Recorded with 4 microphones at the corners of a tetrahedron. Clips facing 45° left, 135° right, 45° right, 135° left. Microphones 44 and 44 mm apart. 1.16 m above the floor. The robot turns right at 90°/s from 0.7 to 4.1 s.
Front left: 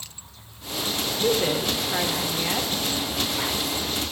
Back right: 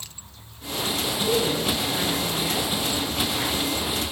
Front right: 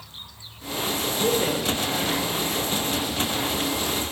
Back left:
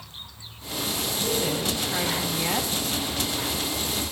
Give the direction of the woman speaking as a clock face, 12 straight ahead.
12 o'clock.